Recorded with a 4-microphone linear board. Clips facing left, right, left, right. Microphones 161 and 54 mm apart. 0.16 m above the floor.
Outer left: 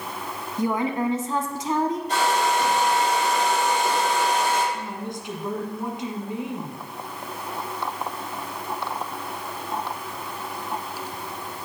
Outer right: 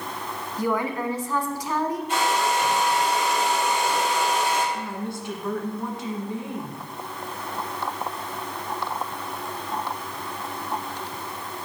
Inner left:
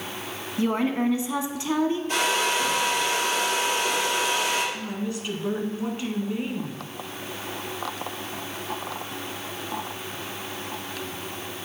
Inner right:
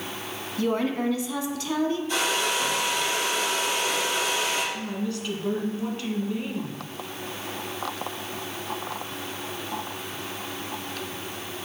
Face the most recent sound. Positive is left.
turn(degrees=20)  # may be behind; listen again after turning